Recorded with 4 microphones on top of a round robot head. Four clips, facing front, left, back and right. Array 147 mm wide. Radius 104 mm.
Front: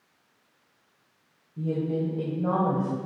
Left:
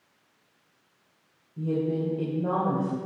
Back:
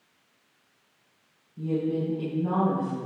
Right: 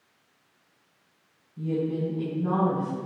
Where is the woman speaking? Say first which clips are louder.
Left 1 dB, back 1 dB; 40° left, 3 m; by 3.0 s 30° left, 3 m.